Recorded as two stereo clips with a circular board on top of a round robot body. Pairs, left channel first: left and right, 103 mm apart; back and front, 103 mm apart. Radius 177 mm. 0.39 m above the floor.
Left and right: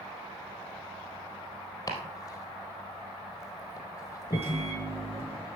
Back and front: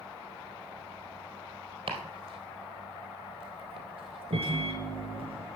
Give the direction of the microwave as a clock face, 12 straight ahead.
1 o'clock.